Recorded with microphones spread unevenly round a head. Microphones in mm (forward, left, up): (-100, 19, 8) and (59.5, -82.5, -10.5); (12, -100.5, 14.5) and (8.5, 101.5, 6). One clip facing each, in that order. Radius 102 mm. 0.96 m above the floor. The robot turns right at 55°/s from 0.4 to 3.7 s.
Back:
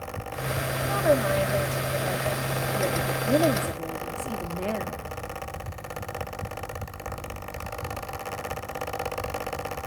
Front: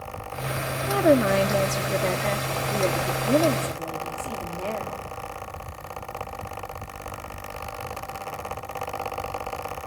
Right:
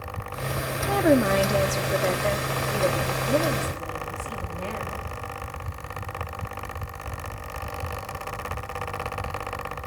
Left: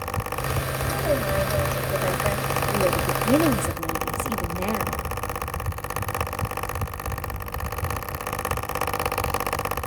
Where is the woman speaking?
80° right, 1.7 m; by 5.0 s 75° left, 1.7 m.